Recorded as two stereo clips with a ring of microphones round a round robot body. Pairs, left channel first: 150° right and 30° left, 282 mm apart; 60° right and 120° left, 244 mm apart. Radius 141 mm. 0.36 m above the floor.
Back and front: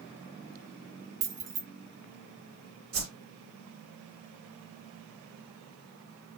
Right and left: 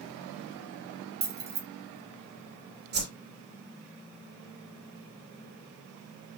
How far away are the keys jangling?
About 1.3 m.